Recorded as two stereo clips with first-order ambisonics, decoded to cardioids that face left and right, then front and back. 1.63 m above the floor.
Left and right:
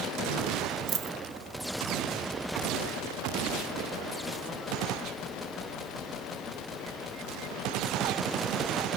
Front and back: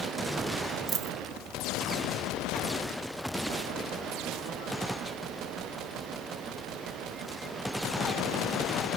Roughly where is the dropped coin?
Behind right.